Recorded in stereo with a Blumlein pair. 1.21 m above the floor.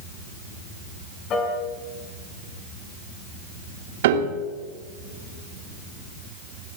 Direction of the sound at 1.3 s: 30° left.